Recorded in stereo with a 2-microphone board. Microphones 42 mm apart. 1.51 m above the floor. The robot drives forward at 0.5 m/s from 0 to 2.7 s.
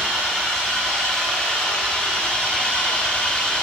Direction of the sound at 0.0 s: 15° left (ahead or behind).